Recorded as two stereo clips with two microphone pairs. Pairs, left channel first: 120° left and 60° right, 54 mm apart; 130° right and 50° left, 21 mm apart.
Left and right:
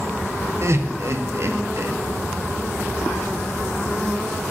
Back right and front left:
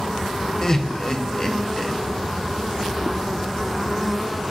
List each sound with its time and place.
0.6 s laughter: 70° right, 0.8 m